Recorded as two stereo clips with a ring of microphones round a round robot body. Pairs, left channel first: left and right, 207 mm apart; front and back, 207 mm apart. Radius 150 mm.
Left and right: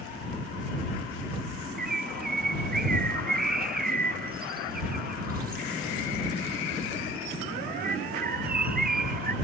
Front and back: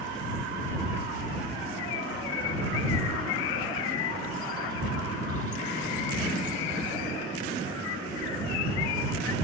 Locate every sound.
1.8 s a bird: 45° right